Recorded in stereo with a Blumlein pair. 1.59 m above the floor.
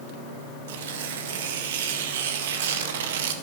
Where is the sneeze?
I don't hear a sneeze.